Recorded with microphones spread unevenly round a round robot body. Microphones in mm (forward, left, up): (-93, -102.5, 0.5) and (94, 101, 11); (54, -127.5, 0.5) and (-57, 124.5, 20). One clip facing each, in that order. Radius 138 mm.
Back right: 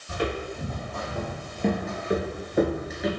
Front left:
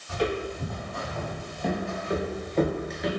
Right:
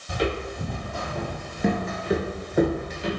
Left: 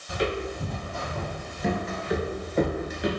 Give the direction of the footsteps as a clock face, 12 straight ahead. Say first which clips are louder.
Front left 2 dB, right 1 dB; 2 o'clock.